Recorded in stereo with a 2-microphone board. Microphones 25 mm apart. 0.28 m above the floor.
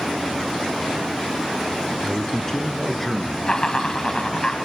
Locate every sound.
2.0 s a man speaking: 30° left (ahead or behind), 3 m; by 3.4 s 5° left (ahead or behind), 3.5 m
3.5 s laughter: 30° left (ahead or behind), 2 m